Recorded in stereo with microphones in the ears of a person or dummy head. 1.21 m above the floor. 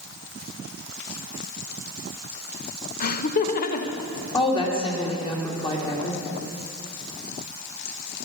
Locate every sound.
3.0 s laughter: 40° left (ahead or behind), 0.7 m; by 4.0 s 50° left (ahead or behind), 1.2 m
4.3 s a woman speaking: 20° left (ahead or behind), 2.5 m